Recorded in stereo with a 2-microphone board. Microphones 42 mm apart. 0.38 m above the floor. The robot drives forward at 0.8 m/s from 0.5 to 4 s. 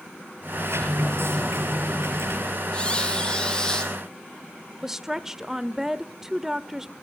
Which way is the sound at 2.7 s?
25° left (ahead or behind).